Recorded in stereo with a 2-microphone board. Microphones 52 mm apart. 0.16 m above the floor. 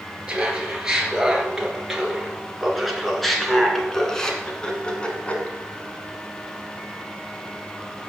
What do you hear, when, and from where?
0.3 s laughter: 15° right (ahead or behind), 4 m; by 5.5 s 25° left (ahead or behind), 2 m